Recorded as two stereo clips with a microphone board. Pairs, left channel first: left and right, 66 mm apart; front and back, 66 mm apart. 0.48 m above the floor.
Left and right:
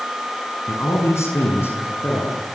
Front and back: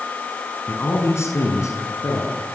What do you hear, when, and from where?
0.7 s a man speaking: 50° left, 6.5 m; by 2.4 s 30° left, 7 m